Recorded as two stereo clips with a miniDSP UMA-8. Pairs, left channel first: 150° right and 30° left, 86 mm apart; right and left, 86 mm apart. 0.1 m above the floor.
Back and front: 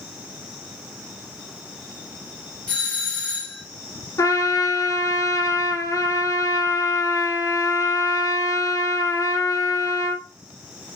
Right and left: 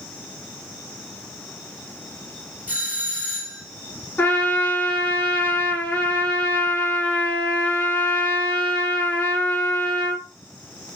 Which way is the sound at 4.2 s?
150° right.